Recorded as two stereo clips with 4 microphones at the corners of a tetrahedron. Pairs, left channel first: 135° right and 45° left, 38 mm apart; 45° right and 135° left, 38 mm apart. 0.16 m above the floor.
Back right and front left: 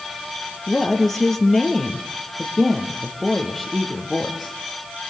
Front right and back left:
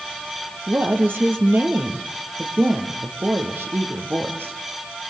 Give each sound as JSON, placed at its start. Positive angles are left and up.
{"t": 0.7, "sound": "a woman speaking", "azimuth_deg": 145, "distance_m": 4.0}